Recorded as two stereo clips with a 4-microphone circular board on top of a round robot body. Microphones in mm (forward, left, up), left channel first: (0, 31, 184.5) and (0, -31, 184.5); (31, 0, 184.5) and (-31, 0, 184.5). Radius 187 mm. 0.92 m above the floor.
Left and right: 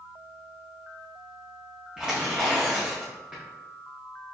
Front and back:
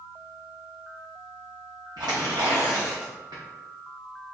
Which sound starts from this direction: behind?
Tearing paper, at 2.0 s.